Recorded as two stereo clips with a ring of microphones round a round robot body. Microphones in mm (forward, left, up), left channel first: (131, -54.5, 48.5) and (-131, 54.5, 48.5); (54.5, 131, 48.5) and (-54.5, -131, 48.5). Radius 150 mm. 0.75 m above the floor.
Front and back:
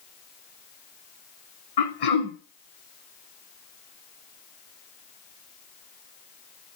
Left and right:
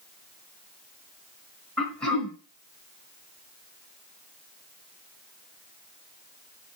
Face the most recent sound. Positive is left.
turn(degrees=-20)